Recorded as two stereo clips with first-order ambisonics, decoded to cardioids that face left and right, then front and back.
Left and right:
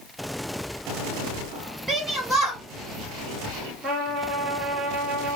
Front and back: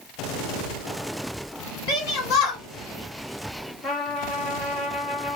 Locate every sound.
1.9 s a shout: 10° right, 2 m
3.8 s a trumpet: 15° right, 2 m